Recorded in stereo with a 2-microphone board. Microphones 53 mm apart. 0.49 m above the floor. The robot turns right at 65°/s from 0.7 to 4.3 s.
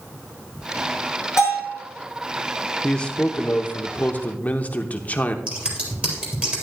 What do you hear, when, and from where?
1.4 s a bell: 70° left (ahead or behind), 6 m; by 1.8 s 40° left (ahead or behind), 6 m
2.8 s a man speaking: 25° left, 0.9 m; by 5.4 s 120° left, 0.9 m
5.5 s scissors: 25° right (ahead or behind), 3.5 m